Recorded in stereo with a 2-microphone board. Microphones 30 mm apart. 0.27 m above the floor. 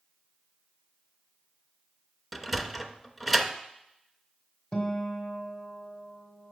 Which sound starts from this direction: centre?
A sliding door, at 2.3 s.